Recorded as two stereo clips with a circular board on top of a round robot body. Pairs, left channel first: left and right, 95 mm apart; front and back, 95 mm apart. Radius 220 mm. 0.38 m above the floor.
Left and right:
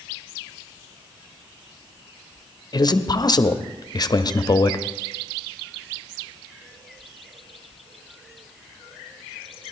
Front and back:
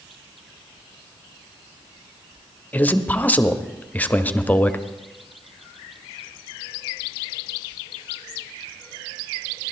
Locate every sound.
2.7 s a man speaking: 70° left, 1.2 m